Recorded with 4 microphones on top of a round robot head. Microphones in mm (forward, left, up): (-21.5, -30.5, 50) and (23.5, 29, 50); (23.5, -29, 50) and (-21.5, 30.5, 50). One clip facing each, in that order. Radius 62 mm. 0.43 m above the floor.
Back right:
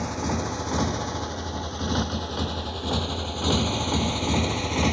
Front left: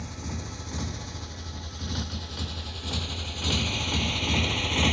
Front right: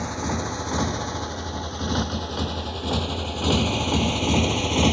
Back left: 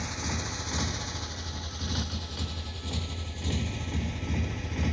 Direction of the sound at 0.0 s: 105° right.